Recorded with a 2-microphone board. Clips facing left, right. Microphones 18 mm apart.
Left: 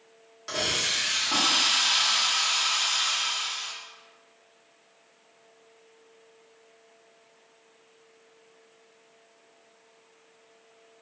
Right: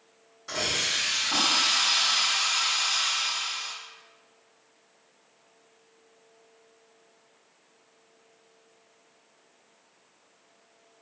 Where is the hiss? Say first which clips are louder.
Left 1 dB; 35° left (ahead or behind), 1.6 m.